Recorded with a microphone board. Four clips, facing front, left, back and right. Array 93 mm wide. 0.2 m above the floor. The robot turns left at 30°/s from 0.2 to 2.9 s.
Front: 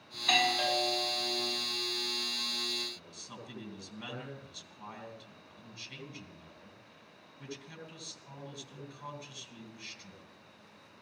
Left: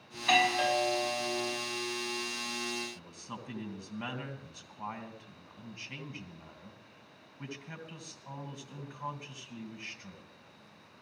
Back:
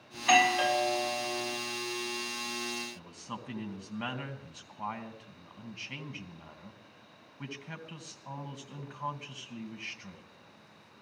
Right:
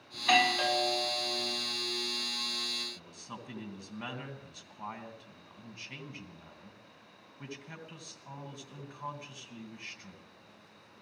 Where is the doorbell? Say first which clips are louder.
Even, back 6 dB; 170° right, 1.5 m; by 1.6 s 145° left, 1.5 m.